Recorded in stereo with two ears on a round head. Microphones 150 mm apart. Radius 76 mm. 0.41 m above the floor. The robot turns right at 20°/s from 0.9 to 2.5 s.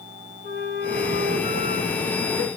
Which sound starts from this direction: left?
A flute, at 0.4 s.